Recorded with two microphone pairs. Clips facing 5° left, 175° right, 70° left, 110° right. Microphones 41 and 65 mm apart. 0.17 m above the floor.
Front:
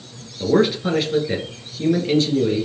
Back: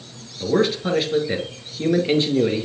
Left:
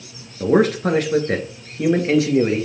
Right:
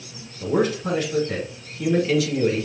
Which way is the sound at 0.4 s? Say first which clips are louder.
Front 2 dB, left 6 dB; 85° left.